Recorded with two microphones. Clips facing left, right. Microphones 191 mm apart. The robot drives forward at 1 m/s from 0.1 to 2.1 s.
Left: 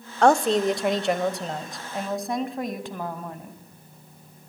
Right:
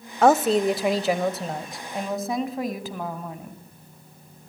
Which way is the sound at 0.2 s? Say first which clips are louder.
Right 1 dB; 5° right (ahead or behind).